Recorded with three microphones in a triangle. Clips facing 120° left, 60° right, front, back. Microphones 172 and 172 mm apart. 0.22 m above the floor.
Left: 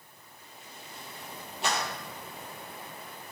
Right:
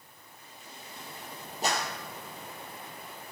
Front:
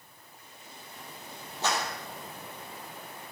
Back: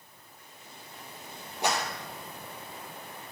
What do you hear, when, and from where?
1.6 s a clap: 105° right, 5 m